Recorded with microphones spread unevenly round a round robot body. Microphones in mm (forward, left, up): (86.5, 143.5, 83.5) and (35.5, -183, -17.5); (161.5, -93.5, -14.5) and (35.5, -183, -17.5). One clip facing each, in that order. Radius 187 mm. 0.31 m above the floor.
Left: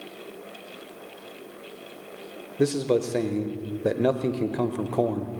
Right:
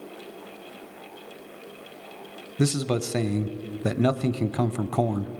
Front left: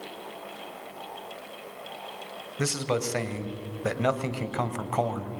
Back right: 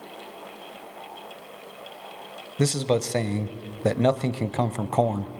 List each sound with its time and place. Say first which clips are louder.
2.6 s a man speaking: left 3 dB, back right 5 dB; 105° right, 1.1 m